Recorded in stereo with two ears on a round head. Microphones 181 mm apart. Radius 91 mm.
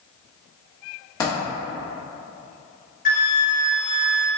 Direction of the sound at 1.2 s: 20° left (ahead or behind).